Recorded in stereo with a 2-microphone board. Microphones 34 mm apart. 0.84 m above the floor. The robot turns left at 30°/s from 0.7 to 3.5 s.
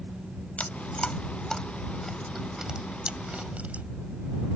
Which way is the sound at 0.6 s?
40° left (ahead or behind).